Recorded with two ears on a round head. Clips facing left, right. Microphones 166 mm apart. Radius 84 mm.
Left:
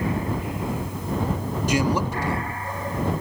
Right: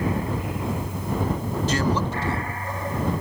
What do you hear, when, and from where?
1.7 s a man speaking: 15° left (ahead or behind)